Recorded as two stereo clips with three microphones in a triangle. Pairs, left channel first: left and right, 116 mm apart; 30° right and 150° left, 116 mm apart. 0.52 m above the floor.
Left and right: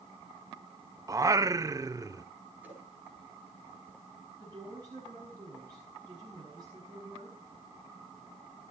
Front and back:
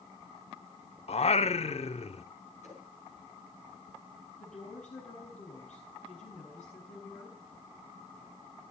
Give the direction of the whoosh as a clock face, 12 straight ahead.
1 o'clock.